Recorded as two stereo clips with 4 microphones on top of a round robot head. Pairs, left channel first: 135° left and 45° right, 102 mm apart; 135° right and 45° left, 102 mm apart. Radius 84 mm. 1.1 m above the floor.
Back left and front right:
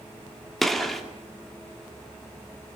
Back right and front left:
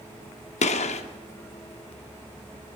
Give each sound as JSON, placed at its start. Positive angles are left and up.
{"t": 0.6, "sound": "a gunshot", "azimuth_deg": -140, "distance_m": 2.5}